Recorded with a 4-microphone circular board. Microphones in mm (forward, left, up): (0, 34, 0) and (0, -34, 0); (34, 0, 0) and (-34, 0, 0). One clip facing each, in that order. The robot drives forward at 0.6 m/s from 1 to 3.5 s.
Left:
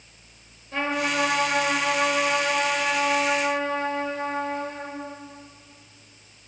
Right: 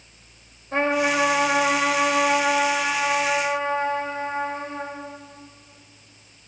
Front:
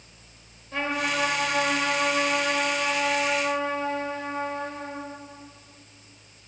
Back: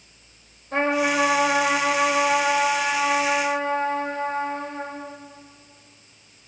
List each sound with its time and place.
0.7 s a trumpet: 130° right, 3.5 m; by 5.0 s 145° right, 5 m